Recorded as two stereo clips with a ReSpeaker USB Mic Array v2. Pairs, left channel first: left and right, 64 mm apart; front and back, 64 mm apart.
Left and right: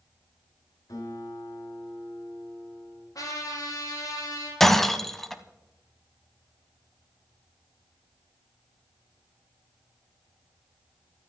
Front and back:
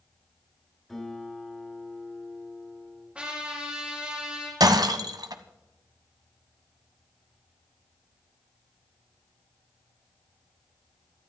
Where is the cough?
No cough in this recording.